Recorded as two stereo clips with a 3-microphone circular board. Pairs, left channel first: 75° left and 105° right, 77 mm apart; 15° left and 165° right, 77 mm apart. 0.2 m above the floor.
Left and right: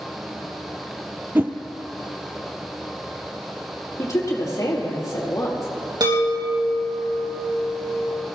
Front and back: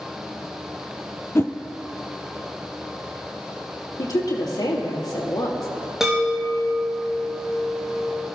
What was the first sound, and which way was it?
A whoosh, 40° right.